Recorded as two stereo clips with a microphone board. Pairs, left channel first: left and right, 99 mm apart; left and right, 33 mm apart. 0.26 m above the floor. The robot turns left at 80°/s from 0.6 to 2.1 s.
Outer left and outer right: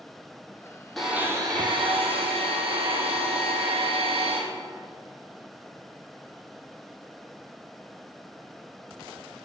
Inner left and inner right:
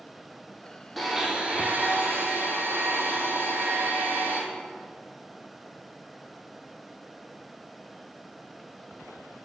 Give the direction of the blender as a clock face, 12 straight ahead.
12 o'clock.